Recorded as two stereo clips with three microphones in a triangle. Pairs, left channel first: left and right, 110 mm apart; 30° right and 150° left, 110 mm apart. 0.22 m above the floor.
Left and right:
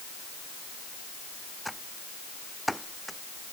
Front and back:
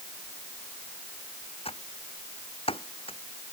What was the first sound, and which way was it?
Typing on a keyboard, straight ahead.